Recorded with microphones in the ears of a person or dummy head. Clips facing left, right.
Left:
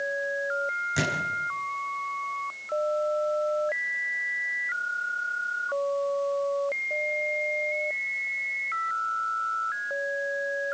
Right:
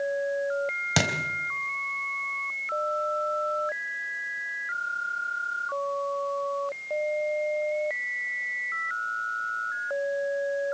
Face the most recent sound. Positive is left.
turn(degrees=-80)